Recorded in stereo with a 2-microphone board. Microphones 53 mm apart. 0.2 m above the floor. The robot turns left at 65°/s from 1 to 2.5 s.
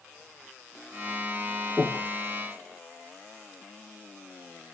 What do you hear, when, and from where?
1.8 s breathing: 5° right (ahead or behind), 5.5 m; by 2.1 s 25° right (ahead or behind), 5.5 m